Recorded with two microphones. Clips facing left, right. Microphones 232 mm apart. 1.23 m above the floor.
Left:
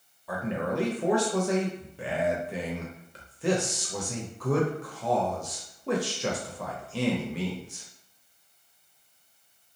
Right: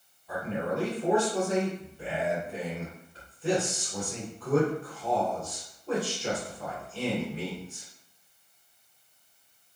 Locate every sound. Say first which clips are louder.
0.3 s a man speaking: left 1 dB; 85° left, 0.7 m